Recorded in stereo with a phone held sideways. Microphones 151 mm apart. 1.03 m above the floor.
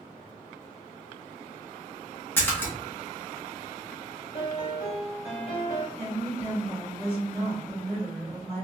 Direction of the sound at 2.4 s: 15° left (ahead or behind).